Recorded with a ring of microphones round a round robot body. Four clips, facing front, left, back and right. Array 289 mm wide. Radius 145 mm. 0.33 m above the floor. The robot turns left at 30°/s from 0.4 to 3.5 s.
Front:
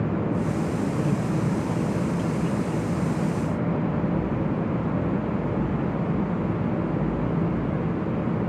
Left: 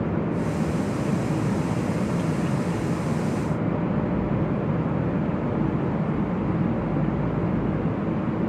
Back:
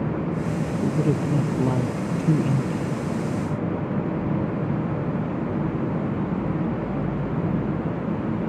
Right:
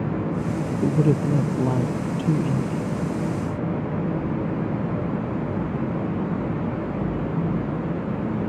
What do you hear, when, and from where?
0.8 s a man speaking: 105° right; by 2.9 s 165° right